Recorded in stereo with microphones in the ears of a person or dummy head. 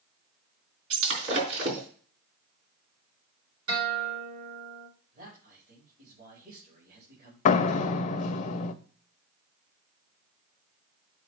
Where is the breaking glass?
60° right (ahead or behind), 3.5 m.